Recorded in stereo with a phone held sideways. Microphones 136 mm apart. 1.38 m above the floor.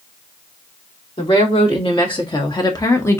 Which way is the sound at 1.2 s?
45° left (ahead or behind).